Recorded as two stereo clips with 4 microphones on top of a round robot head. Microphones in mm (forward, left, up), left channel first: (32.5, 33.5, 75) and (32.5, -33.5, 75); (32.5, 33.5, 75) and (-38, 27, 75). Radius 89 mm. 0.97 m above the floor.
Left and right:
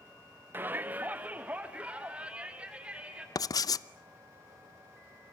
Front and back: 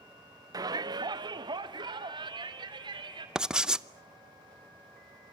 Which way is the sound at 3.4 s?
105° left.